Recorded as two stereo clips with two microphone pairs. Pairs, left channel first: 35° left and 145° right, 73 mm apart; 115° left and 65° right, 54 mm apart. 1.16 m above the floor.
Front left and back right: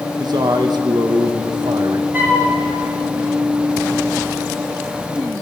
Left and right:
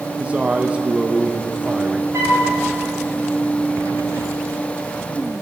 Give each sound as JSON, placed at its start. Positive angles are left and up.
{"t": 0.2, "sound": "a man speaking", "azimuth_deg": -130, "distance_m": 0.9}
{"t": 2.1, "sound": "a flute", "azimuth_deg": -85, "distance_m": 2.5}